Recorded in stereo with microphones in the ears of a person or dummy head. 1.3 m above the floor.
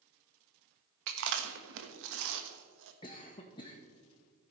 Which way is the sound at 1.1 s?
70° right (ahead or behind).